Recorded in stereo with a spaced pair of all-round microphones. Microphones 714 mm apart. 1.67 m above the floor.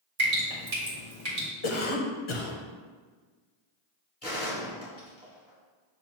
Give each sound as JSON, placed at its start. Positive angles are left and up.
{"t": 0.2, "sound": "dripping", "side_deg": -55, "distance_m": 1.4}
{"t": 1.6, "sound": "a cough", "side_deg": 45, "distance_m": 0.8}
{"t": 4.2, "sound": "a gunshot", "side_deg": 20, "distance_m": 1.5}